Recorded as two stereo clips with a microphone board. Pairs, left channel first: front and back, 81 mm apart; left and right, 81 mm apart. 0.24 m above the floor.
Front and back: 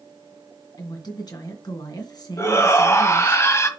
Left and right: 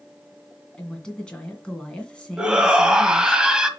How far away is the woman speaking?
About 2 m.